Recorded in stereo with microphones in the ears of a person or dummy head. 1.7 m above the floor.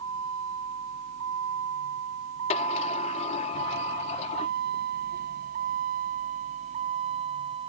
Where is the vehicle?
85° right; by 7.7 s 30° right (ahead or behind).